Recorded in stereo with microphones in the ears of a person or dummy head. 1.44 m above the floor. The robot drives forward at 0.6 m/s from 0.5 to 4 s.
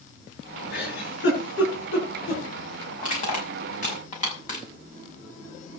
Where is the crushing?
40° left (ahead or behind), 6.5 m.